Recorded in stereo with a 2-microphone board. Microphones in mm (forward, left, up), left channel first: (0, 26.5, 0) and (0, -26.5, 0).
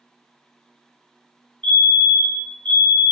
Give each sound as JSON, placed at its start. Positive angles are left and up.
{"t": 1.6, "sound": "a fire alarm", "side_deg": 25, "distance_m": 1.8}